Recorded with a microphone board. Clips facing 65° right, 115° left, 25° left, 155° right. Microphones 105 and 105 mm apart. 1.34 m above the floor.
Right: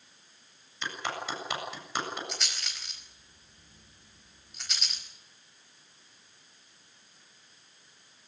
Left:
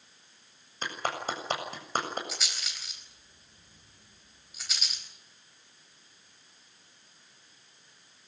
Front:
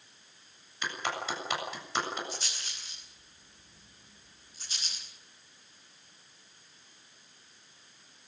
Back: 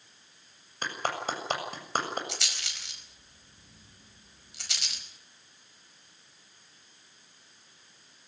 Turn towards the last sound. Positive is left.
turn(degrees=-160)